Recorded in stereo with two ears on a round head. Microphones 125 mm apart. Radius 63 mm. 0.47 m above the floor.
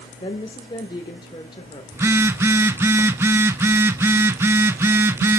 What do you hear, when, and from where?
0.2 s a woman speaking: 35° left (ahead or behind), 1.5 m
1.9 s a phone buzzing: 15° right (ahead or behind), 0.6 m